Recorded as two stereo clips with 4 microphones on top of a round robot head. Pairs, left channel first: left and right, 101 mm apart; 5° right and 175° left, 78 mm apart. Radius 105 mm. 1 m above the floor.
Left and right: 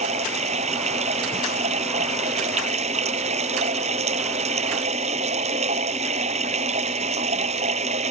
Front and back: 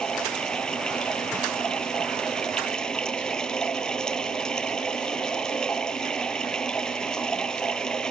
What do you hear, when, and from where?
0.0 s running water: 90° right